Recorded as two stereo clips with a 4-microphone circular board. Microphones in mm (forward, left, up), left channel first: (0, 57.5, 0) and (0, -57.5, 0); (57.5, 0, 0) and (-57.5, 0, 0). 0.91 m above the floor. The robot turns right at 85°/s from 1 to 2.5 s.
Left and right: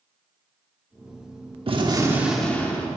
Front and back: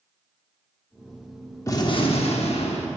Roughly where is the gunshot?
Ahead right.